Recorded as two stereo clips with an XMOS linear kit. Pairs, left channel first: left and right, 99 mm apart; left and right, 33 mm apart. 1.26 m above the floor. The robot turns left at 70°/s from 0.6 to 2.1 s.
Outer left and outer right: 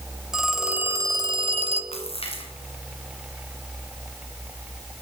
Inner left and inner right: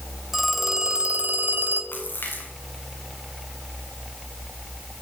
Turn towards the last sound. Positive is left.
turn(degrees=75)  # may be behind; listen again after turning